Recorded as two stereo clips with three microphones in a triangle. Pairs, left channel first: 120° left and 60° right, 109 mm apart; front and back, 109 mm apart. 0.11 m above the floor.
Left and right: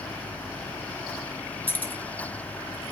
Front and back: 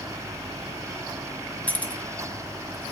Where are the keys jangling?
65° left, 0.8 m.